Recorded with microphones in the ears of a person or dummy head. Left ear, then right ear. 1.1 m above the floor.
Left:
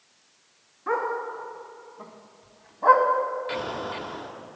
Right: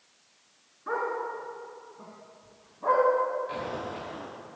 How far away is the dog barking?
About 2.5 m.